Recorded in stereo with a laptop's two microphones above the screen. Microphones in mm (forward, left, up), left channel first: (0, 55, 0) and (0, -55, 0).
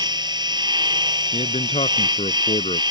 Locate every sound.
0.0 s a machine running: 40° right (ahead or behind)
1.3 s a man speaking: 80° left